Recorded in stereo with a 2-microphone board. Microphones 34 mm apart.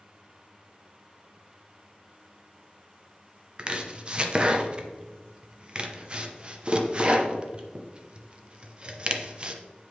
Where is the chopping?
30° right (ahead or behind), 0.7 m.